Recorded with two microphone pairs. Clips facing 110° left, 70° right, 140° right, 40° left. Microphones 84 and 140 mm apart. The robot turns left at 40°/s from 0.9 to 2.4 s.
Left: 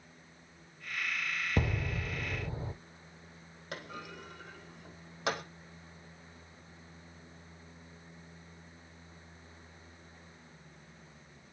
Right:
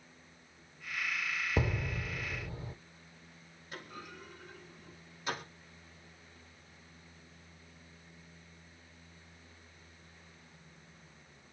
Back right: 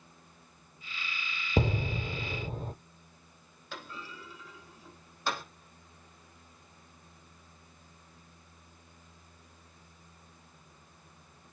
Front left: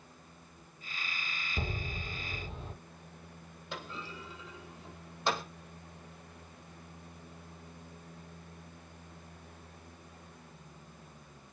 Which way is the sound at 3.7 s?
110° left.